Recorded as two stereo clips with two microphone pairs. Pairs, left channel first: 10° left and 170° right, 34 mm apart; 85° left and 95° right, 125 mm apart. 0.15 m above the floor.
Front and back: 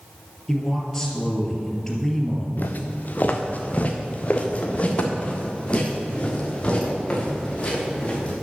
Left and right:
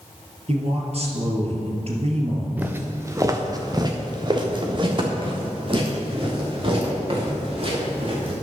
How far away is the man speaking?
About 2.5 m.